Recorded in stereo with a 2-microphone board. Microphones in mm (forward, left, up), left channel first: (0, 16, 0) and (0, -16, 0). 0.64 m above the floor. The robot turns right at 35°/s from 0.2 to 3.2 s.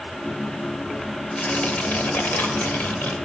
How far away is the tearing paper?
About 1.5 m.